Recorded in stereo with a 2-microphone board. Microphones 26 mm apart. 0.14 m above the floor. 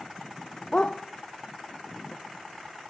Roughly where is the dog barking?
Left.